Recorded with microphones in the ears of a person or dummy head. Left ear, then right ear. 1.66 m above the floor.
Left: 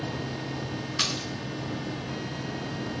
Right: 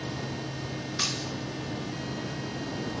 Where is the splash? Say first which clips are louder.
Left 2 dB; 30° left (ahead or behind), 1.7 m.